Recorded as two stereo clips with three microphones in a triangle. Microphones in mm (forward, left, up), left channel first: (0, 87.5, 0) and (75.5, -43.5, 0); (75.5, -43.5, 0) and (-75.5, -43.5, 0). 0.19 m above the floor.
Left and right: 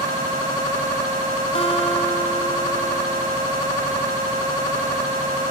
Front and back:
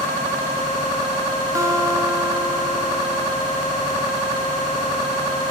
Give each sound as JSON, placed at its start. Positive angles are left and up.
{"t": 1.6, "sound": "a guitar", "azimuth_deg": 125, "distance_m": 1.4}